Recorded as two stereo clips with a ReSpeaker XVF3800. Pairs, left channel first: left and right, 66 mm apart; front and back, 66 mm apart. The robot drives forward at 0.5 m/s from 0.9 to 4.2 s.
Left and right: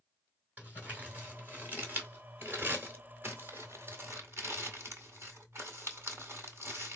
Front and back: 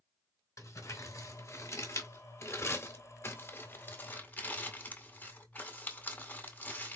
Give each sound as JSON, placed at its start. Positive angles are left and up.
{"t": 0.6, "sound": "crumpling", "azimuth_deg": -25, "distance_m": 3.0}